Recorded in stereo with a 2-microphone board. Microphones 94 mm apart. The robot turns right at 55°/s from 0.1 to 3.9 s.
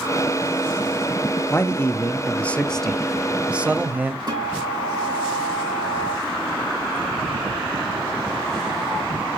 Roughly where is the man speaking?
Left.